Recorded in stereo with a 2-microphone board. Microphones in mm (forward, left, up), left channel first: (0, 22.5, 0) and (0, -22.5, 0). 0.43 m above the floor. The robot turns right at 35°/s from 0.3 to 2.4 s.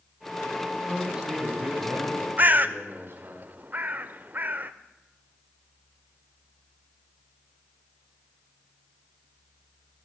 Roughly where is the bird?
Right.